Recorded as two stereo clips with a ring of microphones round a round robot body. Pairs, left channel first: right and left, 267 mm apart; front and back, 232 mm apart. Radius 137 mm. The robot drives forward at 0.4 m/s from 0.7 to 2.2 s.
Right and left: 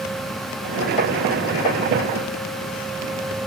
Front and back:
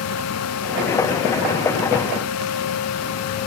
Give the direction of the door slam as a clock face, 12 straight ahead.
No door slam in this recording.